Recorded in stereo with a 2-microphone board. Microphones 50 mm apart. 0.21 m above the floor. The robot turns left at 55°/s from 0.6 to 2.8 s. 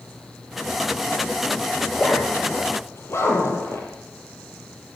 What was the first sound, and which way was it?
A zipper, 5° left (ahead or behind).